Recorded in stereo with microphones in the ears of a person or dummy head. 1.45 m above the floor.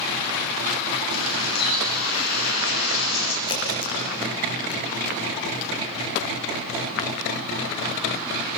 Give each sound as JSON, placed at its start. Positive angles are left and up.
{"t": 1.1, "sound": "a bird", "side_deg": 60, "distance_m": 3.0}
{"t": 3.5, "sound": "a crack", "side_deg": 25, "distance_m": 6.0}